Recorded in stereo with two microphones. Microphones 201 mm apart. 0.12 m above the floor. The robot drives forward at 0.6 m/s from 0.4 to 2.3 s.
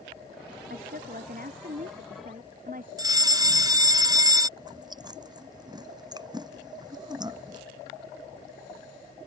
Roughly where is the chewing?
Right.